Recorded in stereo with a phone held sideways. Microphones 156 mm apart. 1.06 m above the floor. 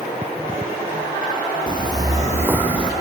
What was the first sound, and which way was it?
Footsteps, 30° right (ahead or behind).